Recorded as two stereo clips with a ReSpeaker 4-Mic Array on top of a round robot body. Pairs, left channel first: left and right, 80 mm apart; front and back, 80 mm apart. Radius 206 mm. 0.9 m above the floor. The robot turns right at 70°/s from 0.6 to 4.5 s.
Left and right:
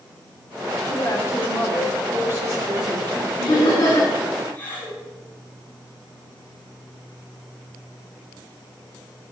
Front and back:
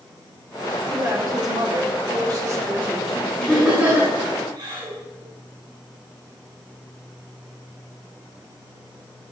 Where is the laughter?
75° left, 6.5 m; by 5.0 s 155° left, 6.5 m.